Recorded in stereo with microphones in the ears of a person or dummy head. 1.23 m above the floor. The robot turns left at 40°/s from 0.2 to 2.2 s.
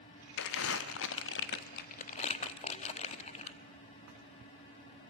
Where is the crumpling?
60° left (ahead or behind), 1.2 m; by 3.6 s 35° left (ahead or behind), 1.2 m.